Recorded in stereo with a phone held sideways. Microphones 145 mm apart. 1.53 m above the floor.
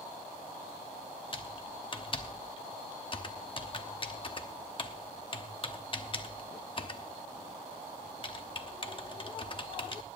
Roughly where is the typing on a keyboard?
Left.